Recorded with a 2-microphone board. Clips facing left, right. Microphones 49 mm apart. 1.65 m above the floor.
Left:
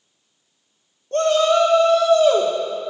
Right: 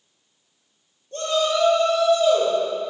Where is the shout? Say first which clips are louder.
Left 6 dB; 65° left (ahead or behind), 1.7 m.